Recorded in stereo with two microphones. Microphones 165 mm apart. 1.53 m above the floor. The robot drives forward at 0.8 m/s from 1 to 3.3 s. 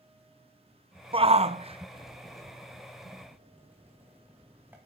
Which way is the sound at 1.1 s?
35° right (ahead or behind).